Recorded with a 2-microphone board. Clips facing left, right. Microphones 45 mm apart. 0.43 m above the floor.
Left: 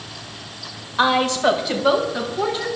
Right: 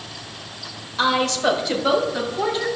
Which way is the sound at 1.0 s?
25° left (ahead or behind).